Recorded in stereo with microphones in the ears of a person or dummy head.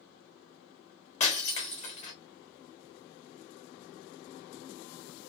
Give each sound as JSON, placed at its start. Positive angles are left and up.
{"t": 1.2, "sound": "breaking glass", "side_deg": 35, "distance_m": 1.6}